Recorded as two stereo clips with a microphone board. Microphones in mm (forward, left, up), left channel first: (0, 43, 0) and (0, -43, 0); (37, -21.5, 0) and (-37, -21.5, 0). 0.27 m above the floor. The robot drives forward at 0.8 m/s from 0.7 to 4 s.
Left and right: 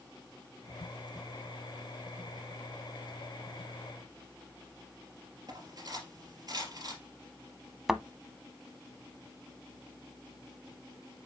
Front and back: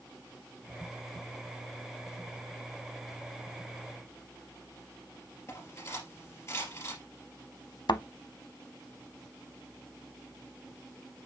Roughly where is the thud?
Ahead.